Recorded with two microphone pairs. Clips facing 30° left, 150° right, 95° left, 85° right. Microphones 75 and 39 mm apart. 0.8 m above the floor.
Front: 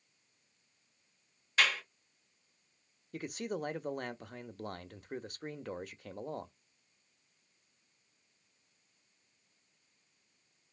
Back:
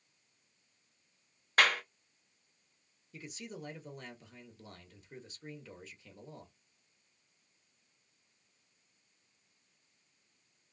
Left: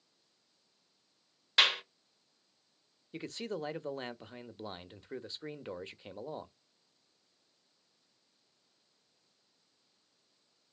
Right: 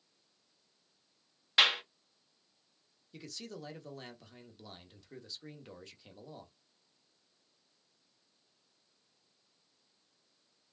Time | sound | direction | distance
1.6 | a clap | 170° right | 1.1 m
3.1 | a man speaking | 50° left | 0.7 m